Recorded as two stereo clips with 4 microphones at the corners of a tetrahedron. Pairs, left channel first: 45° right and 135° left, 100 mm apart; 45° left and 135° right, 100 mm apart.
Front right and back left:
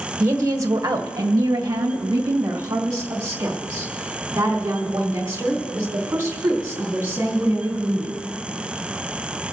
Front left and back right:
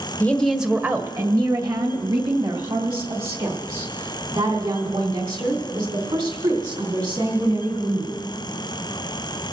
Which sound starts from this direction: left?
A woman speaking, at 0.2 s.